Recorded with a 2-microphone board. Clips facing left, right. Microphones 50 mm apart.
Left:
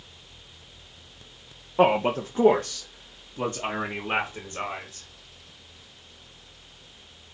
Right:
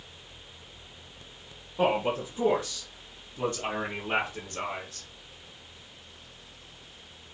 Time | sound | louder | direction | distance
1.8 | a man speaking | left 5 dB | 55° left (ahead or behind) | 0.7 m